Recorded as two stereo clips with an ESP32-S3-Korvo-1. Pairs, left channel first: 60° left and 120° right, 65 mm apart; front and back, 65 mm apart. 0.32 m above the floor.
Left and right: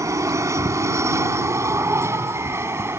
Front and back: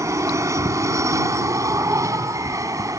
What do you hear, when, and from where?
0.0 s an aircraft: 150° right; by 3.0 s 165° right